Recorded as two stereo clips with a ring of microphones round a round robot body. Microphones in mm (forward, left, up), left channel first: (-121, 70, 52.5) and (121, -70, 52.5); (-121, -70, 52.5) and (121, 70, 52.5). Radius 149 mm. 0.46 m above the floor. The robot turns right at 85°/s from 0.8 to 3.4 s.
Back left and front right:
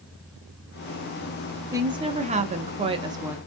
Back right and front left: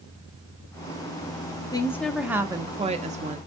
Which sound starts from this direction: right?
A woman speaking, at 1.7 s.